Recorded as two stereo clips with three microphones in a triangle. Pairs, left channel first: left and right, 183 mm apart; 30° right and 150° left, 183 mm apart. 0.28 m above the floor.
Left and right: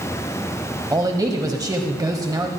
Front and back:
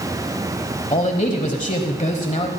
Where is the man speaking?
30° right, 1.2 m.